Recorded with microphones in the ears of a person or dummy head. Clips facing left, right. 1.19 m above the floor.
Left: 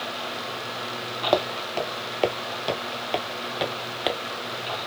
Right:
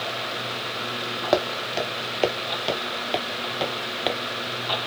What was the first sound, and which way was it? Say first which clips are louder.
Footsteps: right 1 dB; 10° right (ahead or behind).